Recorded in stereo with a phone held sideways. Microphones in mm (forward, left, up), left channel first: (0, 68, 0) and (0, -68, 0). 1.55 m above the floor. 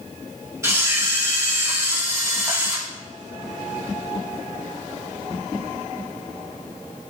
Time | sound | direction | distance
0.6 | a camera shutter | 20° right (ahead or behind) | 2.5 m